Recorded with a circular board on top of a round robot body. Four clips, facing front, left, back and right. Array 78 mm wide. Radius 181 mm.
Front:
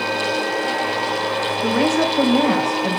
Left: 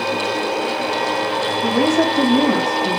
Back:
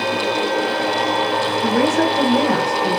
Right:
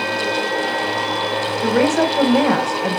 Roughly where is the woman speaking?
Right.